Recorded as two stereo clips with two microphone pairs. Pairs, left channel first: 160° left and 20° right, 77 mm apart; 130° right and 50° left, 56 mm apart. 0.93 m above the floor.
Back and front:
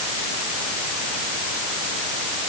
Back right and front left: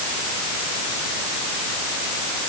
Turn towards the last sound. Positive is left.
No sound to turn to.